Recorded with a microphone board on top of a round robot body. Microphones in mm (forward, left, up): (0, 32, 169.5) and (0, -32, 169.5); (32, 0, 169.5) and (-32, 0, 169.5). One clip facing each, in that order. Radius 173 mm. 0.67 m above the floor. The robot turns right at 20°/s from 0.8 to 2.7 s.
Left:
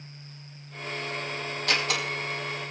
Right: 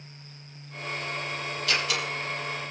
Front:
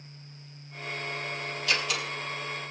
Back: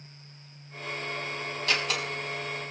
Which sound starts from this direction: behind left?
A door slam, at 1.7 s.